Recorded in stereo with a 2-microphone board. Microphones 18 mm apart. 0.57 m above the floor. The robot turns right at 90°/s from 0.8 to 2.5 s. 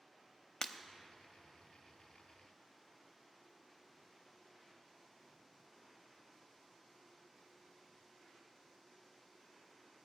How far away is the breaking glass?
About 0.5 m.